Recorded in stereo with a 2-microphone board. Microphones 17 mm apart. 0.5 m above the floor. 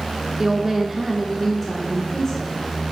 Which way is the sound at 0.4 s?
30° right (ahead or behind).